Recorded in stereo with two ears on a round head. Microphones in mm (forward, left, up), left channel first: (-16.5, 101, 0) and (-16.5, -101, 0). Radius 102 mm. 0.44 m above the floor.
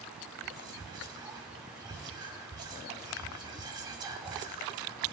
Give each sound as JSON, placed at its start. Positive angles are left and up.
{"t": 0.4, "sound": "whispering", "side_deg": -20, "distance_m": 0.8}